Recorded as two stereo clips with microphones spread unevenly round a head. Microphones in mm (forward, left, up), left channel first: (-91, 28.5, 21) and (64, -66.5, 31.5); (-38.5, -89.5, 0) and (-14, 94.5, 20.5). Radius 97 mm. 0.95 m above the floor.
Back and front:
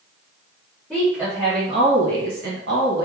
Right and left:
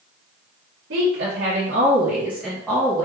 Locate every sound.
0.9 s a woman speaking: 55° left, 1.0 m; by 3.1 s 35° right, 0.9 m